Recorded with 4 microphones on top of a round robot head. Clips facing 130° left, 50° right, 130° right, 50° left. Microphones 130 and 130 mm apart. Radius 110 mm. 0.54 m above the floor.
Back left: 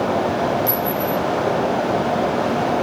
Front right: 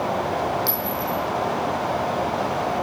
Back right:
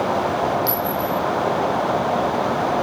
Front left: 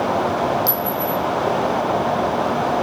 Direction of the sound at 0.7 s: 5° left.